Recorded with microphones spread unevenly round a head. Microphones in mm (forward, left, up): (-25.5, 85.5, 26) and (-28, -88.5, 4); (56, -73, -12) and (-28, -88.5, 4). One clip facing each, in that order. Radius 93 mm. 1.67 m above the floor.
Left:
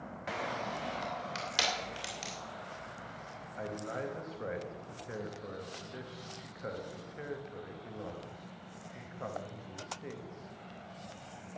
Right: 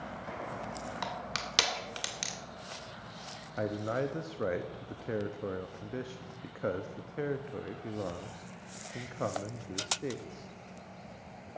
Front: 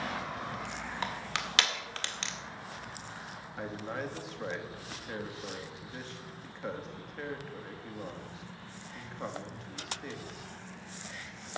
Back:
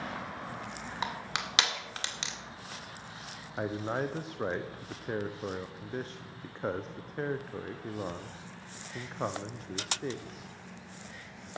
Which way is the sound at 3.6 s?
125° right.